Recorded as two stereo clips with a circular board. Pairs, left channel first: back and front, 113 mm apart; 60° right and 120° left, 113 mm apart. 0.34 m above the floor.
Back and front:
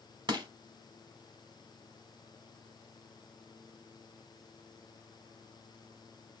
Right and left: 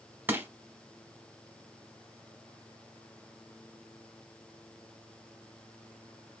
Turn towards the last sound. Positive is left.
turn(degrees=50)